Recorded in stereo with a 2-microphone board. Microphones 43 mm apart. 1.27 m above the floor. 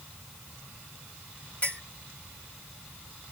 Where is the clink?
35° left (ahead or behind), 2.5 m.